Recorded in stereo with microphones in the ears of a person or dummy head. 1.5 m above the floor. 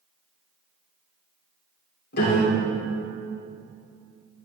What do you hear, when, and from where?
2.1 s a piano: 55° left (ahead or behind), 3 m